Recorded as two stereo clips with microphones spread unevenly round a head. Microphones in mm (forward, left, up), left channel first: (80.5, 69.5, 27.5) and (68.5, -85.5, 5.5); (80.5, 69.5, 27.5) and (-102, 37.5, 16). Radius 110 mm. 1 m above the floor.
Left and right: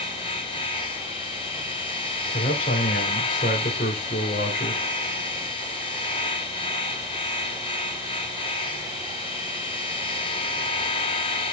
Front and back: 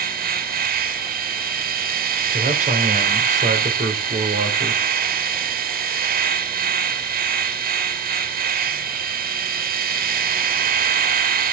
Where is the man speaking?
140° left, 4 m.